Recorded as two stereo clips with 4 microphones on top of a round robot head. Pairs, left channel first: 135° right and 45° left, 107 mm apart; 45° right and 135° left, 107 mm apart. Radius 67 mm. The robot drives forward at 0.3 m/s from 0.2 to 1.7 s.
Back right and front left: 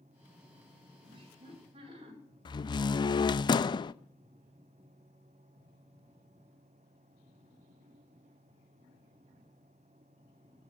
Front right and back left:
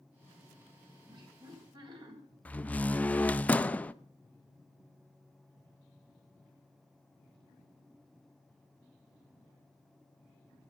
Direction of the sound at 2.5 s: 115° right.